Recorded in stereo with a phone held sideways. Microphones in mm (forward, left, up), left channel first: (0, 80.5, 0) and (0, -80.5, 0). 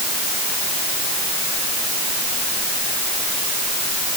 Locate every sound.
Only background noise.